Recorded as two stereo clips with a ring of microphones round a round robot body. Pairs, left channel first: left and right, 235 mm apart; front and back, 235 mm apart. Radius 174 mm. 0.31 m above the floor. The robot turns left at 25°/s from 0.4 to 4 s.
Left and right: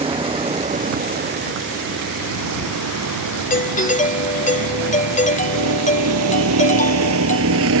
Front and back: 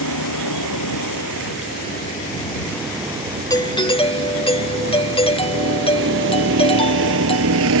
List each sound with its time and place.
0.0 s a vehicle: 25° right; by 7.8 s 135° right
3.5 s a doorbell: 65° left; by 7.7 s 55° left